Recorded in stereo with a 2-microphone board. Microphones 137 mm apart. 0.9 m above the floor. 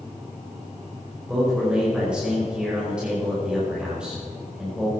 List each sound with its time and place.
1.3 s a man speaking: 5° right (ahead or behind), 5 m